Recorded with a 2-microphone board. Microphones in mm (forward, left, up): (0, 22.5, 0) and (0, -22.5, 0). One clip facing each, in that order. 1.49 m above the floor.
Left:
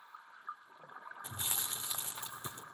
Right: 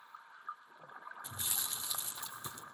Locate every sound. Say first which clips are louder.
1.2 s chewing: left 2 dB; 35° left (ahead or behind), 3 m